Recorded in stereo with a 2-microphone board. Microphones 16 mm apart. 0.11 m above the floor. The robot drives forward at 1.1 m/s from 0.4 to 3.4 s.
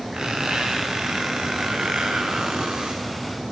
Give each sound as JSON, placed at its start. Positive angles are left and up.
{"t": 0.1, "sound": "a squeak", "side_deg": -55, "distance_m": 5.5}